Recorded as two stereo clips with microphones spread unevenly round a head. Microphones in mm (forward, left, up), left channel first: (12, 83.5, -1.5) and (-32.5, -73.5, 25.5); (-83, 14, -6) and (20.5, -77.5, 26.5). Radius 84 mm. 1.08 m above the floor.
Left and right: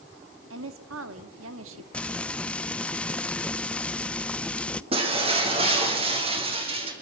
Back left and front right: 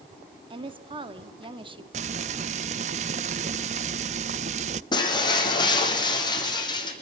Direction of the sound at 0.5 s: 95° right.